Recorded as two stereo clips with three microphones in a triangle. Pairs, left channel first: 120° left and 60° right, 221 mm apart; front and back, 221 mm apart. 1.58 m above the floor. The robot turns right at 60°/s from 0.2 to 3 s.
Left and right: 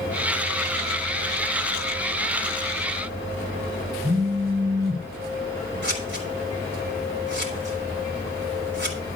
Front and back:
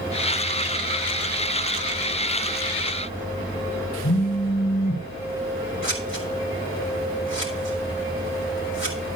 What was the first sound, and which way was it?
A phone buzzing, 20° left.